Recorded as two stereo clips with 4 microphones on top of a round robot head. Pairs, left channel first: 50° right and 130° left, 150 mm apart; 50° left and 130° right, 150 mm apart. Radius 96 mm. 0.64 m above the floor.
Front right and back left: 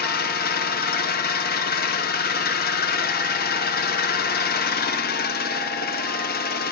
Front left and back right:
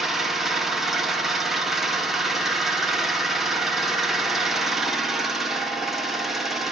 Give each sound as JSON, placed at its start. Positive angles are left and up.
{"t": 0.0, "sound": "an engine running", "azimuth_deg": -40, "distance_m": 0.9}